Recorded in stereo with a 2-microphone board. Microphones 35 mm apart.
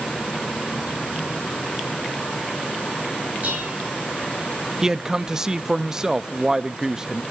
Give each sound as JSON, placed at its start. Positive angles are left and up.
{"t": 3.4, "sound": "dishes clattering", "side_deg": -35, "distance_m": 9.5}
{"t": 4.8, "sound": "a man speaking", "side_deg": -15, "distance_m": 0.5}